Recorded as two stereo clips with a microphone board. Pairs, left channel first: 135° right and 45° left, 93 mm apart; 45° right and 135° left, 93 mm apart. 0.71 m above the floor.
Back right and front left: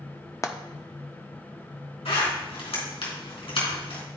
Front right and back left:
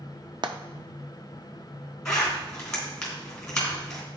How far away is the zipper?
About 2.5 m.